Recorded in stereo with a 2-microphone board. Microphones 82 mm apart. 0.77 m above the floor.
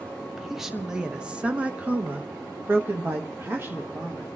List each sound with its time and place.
0.3 s a woman speaking: centre (ahead or behind), 1.2 m; by 4.3 s 30° right (ahead or behind), 1.6 m